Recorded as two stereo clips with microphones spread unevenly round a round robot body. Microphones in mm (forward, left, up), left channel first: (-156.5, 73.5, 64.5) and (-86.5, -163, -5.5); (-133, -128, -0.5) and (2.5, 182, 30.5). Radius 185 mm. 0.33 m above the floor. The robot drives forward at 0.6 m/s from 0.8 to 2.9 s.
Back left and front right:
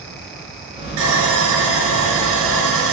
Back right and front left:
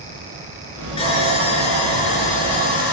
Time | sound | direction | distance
1.0 | sawing | 35° right | 5.5 m